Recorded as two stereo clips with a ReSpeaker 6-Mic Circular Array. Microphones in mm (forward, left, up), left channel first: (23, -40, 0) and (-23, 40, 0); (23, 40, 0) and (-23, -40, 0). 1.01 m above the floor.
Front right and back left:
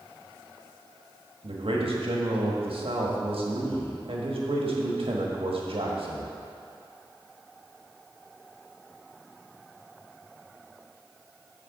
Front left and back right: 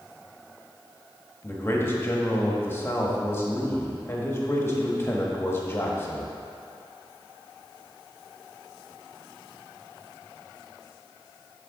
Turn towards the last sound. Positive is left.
turn(degrees=125)